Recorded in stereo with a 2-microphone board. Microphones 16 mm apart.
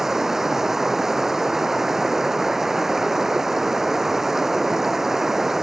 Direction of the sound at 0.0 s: 25° right (ahead or behind).